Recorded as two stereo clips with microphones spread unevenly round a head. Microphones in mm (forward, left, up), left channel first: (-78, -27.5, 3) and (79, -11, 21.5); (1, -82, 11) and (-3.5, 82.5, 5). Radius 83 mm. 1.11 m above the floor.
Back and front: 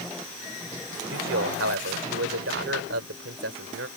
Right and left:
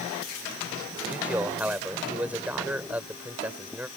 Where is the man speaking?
10° left.